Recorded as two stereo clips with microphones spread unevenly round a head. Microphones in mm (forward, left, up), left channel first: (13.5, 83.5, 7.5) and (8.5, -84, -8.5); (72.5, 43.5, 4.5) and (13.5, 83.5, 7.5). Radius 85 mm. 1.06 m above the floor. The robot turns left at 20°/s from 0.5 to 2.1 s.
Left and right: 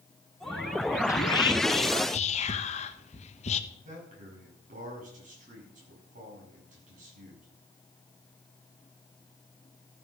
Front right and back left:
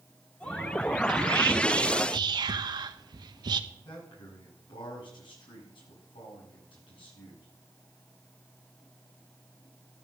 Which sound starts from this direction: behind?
Whispering, at 1.1 s.